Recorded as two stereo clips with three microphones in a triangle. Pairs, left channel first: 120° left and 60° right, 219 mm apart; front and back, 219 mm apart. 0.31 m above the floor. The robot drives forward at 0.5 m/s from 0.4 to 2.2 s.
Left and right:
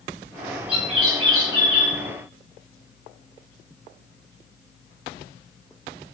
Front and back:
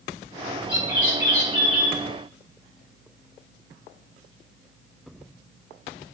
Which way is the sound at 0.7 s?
155° left.